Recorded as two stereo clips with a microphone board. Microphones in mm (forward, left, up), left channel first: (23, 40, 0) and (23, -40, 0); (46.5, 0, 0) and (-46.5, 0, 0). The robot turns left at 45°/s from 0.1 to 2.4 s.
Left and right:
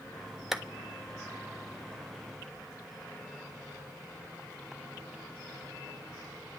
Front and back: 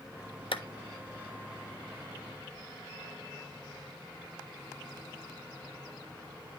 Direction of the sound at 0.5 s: 5° right.